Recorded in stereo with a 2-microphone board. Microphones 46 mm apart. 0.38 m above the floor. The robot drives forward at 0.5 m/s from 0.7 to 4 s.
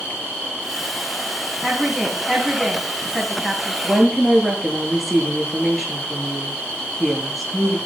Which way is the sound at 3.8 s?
5° right (ahead or behind).